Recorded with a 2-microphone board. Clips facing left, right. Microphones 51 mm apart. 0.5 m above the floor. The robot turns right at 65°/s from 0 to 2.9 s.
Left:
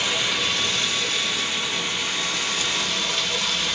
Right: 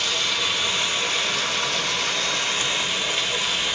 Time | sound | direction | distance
0.0 | running water | 150° left | 1.2 m